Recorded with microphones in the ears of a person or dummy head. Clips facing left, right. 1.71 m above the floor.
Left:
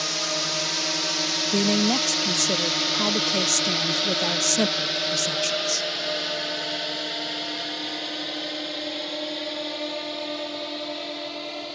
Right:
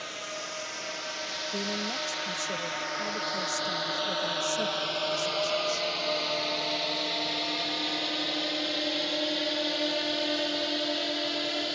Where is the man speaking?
85° left.